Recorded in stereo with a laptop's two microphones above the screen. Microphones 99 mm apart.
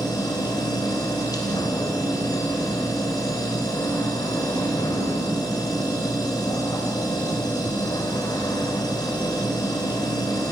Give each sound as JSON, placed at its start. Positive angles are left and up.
{"t": 0.0, "sound": "a machine running", "side_deg": 40, "distance_m": 2.5}